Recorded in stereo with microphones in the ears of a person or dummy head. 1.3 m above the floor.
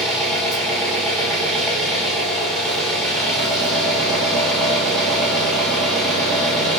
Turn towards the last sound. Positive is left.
turn(degrees=5)  # may be behind; listen again after turning